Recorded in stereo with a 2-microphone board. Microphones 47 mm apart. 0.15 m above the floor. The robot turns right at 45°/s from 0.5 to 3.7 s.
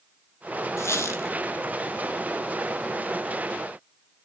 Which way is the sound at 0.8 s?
70° left (ahead or behind).